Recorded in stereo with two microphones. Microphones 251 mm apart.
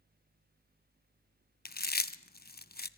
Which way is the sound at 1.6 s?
40° left (ahead or behind).